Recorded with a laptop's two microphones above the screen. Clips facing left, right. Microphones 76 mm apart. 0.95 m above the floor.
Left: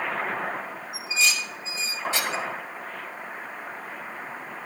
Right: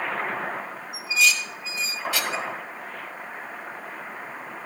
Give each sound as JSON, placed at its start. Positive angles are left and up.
{"t": 0.9, "sound": "dishes clattering", "side_deg": 30, "distance_m": 1.1}